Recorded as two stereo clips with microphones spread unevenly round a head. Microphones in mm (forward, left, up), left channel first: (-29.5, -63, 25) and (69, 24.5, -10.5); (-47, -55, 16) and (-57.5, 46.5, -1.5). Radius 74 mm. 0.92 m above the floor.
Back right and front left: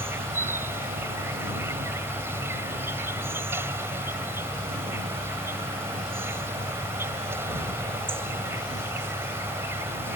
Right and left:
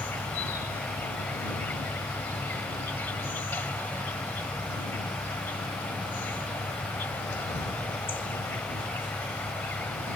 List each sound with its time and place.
0.0 s an insect: 40° right